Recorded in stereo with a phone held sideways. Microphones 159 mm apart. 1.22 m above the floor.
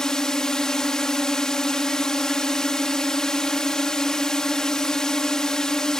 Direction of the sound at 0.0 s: 5° left (ahead or behind).